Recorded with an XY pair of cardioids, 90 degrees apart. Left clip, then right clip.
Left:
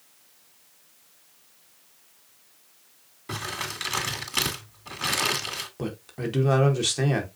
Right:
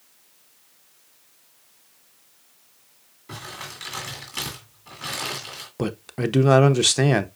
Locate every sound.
3.3 s crumpling: 55° left, 2.0 m
5.8 s a man speaking: 55° right, 0.7 m